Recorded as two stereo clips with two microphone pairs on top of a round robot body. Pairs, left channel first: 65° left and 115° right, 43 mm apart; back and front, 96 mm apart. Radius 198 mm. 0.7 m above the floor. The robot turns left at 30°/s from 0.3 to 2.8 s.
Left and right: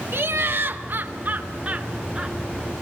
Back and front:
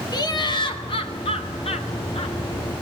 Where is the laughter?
130° right, 3 m; by 2.4 s 165° left, 3 m.